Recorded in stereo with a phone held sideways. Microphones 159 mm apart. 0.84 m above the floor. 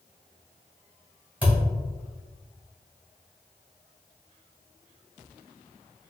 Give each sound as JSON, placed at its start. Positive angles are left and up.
{"t": 1.4, "sound": "a thud", "side_deg": -10, "distance_m": 1.9}